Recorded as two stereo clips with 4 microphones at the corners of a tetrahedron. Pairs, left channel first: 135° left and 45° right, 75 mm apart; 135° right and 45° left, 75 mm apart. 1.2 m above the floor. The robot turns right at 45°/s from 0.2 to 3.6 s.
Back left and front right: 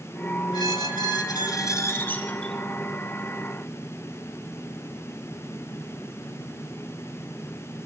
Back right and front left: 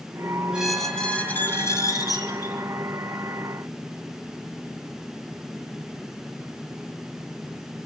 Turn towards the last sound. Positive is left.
turn(degrees=-95)